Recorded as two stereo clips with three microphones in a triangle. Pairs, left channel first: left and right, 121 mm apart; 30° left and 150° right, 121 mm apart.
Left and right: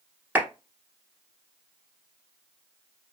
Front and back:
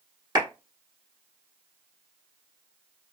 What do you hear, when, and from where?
0.3 s a clap: 160° right, 1.3 m